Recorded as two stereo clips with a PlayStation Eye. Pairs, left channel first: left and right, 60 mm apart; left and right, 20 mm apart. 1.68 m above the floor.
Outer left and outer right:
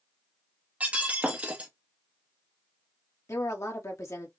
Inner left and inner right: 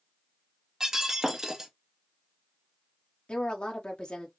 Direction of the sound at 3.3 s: 65° left (ahead or behind).